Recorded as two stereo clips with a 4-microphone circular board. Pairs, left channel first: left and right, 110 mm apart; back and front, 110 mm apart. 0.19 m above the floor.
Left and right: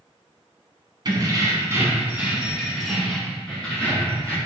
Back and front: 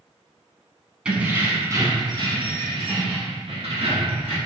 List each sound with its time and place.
1.1 s keys jangling: 75° right, 0.9 m; by 4.4 s 15° left, 2.0 m